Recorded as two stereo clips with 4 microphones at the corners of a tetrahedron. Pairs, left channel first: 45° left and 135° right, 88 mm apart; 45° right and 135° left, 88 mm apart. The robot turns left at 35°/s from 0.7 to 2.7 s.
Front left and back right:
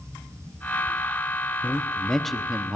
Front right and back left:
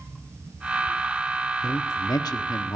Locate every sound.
1.6 s a man speaking: 20° right, 1.0 m; by 2.8 s 55° right, 1.0 m